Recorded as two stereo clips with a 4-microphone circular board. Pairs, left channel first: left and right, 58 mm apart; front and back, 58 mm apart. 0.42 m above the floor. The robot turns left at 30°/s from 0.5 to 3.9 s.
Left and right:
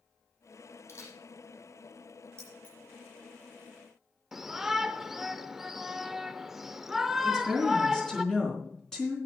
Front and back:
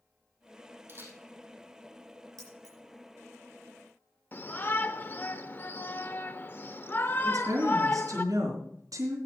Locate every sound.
0.9 s a camera shutter: 130° left, 3.5 m; by 1.2 s 120° left, 3.5 m
2.4 s keys jangling: 165° left, 6.5 m; by 2.8 s 155° left, 6.5 m
4.3 s a shout: 10° right, 0.9 m
7.2 s a woman speaking: 170° left, 4 m